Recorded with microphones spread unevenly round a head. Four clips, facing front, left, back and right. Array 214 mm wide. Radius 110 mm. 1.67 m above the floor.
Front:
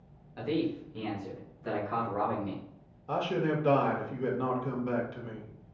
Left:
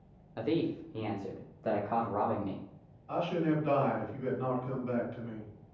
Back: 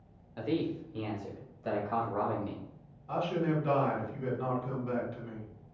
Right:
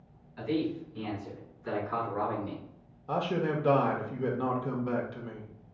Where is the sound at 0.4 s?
95° left, 0.8 m; by 2.6 s 105° left, 2 m.